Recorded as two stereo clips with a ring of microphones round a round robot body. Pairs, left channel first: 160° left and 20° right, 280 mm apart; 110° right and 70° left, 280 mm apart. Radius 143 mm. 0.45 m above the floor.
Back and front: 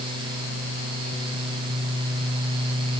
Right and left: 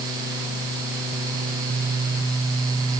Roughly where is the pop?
No pop in this recording.